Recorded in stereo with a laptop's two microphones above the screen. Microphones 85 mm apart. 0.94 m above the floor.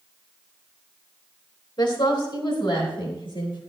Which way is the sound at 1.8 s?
65° left (ahead or behind).